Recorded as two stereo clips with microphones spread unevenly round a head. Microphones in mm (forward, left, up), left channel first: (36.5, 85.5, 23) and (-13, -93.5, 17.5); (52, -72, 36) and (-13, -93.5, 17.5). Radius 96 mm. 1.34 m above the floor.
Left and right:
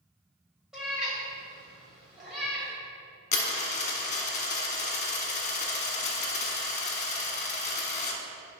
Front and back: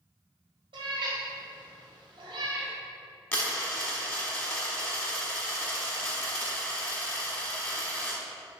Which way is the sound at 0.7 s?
165° left.